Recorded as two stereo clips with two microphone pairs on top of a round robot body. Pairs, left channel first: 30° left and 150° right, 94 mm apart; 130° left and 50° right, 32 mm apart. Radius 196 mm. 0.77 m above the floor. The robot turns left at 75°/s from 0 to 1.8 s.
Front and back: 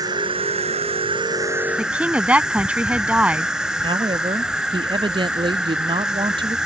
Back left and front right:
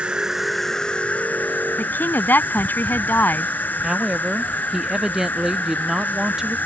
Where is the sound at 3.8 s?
120° right.